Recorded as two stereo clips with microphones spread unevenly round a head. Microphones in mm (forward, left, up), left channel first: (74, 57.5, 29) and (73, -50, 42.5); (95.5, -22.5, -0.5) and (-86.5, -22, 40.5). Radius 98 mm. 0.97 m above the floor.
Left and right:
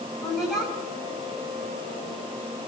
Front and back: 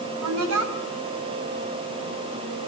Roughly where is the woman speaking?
Behind.